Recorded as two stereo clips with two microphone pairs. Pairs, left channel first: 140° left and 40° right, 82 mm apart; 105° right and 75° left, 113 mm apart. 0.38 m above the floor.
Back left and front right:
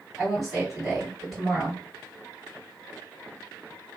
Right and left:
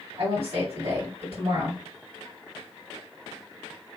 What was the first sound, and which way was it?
A woman speaking, 55° left.